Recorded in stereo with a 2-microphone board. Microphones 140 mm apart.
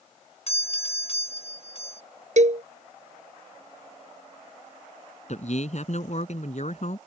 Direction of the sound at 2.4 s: 60° right (ahead or behind).